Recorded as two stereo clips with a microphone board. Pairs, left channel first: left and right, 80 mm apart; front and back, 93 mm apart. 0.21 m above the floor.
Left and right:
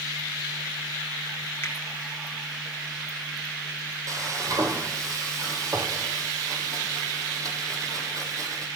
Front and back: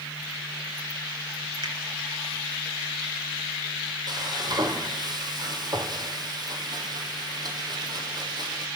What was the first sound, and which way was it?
A finger snap, 150° left.